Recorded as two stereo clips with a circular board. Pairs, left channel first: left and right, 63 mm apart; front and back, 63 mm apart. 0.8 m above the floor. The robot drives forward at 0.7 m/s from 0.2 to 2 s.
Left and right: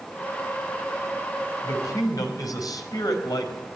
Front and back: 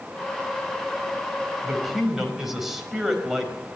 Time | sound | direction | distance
1.6 | a man speaking | 90° left | 4.5 m